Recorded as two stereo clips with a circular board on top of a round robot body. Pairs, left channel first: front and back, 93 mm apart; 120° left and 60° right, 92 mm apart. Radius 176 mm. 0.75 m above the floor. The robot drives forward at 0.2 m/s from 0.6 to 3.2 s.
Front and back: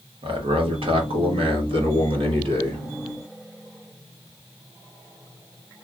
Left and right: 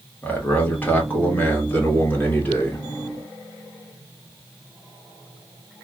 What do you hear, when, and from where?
0.2 s a man speaking: 170° right, 1.5 m